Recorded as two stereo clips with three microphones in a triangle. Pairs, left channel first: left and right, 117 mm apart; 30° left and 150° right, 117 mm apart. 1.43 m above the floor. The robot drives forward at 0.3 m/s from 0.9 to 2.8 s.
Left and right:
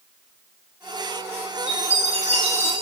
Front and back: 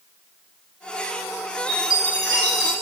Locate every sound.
1.7 s a chime: 95° right, 6.5 m; by 2.7 s 100° right, 6.5 m